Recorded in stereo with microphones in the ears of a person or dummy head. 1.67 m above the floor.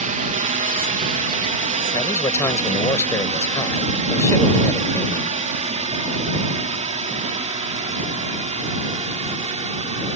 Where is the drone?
40° right (ahead or behind); by 10.2 s 35° right (ahead or behind).